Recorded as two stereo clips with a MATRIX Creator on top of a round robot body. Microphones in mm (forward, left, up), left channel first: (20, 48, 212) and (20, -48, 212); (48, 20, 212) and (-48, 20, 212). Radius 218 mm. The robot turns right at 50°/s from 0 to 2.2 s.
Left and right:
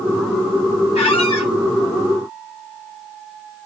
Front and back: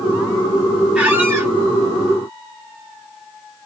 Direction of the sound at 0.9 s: 95° left.